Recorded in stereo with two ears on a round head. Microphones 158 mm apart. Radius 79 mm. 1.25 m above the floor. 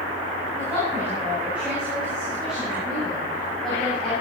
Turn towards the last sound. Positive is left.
turn(degrees=5)  # may be behind; listen again after turning